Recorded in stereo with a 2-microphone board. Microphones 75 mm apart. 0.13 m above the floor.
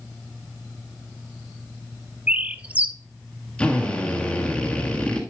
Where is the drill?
15° left (ahead or behind), 1.5 m.